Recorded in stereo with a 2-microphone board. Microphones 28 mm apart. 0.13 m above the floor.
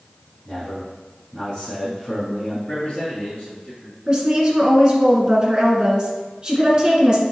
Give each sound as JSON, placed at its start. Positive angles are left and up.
{"t": 0.5, "sound": "a man speaking", "side_deg": 15, "distance_m": 1.7}
{"t": 2.7, "sound": "a man speaking", "side_deg": 40, "distance_m": 1.7}
{"t": 4.1, "sound": "a woman speaking", "side_deg": -30, "distance_m": 1.7}